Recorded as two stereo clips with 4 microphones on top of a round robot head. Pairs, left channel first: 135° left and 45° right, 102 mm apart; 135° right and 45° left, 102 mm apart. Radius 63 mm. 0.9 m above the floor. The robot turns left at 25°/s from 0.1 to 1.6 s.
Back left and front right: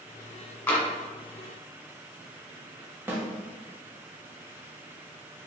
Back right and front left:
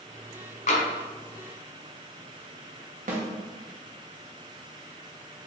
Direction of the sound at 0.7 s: 150° right.